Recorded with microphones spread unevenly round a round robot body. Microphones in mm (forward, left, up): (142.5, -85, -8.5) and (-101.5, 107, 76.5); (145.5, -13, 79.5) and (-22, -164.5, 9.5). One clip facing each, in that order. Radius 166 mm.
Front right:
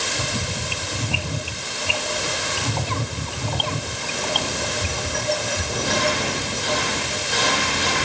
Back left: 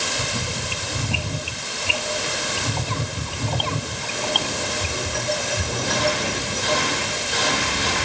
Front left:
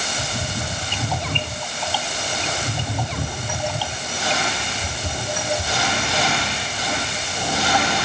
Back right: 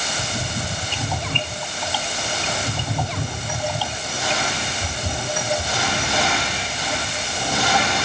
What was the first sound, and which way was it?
Only background noise.